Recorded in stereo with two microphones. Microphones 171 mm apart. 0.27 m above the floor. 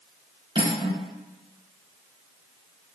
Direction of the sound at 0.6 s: 30° right (ahead or behind).